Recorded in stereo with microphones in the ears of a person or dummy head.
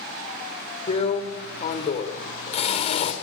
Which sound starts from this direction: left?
A drill, at 0.9 s.